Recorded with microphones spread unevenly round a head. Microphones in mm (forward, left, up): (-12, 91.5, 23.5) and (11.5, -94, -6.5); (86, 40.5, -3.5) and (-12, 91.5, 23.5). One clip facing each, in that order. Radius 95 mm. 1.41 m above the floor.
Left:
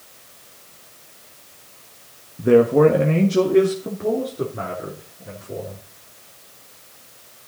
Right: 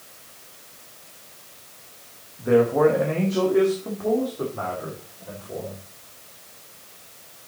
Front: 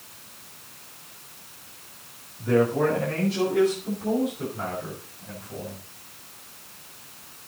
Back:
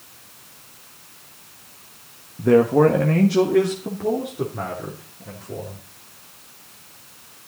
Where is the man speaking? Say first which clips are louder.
Left 4 dB, back 7 dB; 135° left, 1.5 m; by 5.8 s 165° left, 4.5 m.